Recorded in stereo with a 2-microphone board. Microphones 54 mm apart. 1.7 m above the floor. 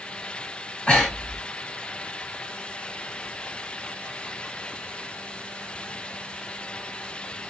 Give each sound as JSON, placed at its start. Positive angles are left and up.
{"t": 0.9, "sound": "breathing", "side_deg": 30, "distance_m": 1.6}